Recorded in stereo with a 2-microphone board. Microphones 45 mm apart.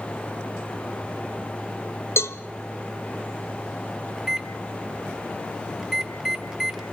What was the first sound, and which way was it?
A cowbell, 65° left (ahead or behind).